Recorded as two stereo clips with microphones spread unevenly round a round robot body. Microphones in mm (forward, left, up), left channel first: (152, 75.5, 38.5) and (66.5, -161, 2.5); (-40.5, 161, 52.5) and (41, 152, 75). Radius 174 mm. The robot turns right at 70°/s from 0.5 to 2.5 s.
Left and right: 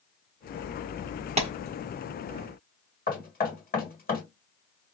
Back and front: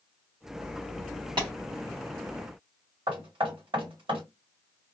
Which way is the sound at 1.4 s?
55° right.